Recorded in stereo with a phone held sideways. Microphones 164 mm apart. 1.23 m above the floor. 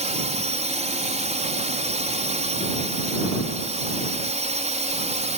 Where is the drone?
45° right (ahead or behind).